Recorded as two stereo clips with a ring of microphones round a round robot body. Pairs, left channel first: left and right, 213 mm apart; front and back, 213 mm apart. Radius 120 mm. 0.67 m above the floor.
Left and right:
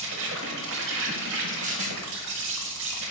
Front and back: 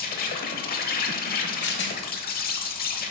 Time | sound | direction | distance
0.0 | an insect | 50° right | 0.8 m
1.6 | a rattle | 30° right | 1.3 m